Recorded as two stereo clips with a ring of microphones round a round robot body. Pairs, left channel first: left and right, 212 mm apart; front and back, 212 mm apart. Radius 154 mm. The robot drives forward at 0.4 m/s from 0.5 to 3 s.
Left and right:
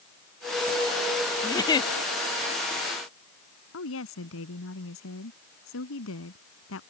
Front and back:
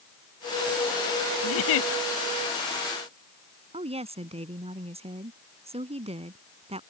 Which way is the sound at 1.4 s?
15° left.